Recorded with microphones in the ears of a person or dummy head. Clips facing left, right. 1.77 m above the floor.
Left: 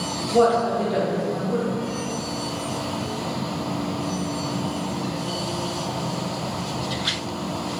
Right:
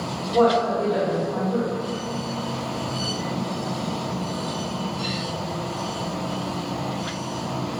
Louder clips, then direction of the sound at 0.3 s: Even; 15° left (ahead or behind).